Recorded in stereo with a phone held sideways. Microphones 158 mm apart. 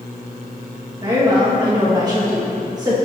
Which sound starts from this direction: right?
A woman speaking, at 1.0 s.